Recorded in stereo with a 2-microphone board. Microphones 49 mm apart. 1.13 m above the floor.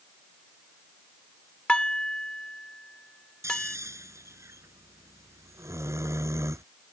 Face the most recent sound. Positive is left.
turn(degrees=-90)